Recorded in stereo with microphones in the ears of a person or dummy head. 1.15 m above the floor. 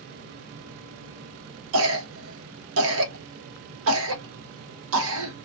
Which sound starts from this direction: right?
A cough, at 1.7 s.